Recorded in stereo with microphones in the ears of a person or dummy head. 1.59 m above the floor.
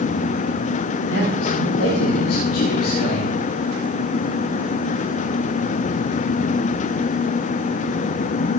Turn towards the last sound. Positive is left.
turn(degrees=90)